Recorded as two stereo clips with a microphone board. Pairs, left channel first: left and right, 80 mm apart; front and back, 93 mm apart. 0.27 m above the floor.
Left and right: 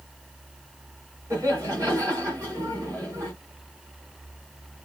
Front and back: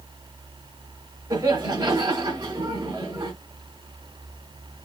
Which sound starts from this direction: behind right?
Laughter, at 1.3 s.